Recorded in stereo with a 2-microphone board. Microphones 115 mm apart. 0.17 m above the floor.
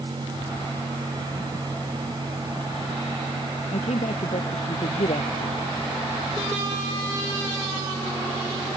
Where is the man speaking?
70° left (ahead or behind).